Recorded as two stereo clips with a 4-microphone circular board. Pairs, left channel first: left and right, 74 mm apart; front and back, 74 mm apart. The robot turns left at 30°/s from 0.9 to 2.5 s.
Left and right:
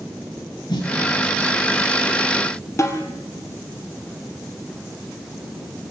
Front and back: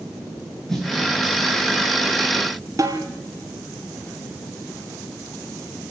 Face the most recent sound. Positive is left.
turn(degrees=140)